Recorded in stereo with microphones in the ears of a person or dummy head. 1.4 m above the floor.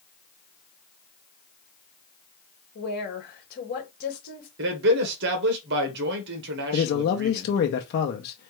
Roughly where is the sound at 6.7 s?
Left.